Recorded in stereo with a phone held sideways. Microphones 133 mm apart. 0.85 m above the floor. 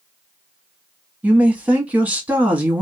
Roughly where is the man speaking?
Centre.